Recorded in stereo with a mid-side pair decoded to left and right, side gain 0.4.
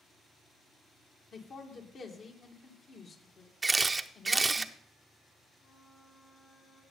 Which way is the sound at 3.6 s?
25° right.